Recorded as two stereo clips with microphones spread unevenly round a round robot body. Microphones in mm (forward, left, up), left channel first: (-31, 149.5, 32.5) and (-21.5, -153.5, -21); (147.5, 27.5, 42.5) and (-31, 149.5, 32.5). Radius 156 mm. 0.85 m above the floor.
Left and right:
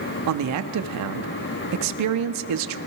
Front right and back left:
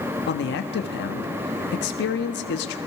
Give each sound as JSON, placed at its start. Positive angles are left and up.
{"t": 0.3, "sound": "a man speaking", "azimuth_deg": -75, "distance_m": 1.5}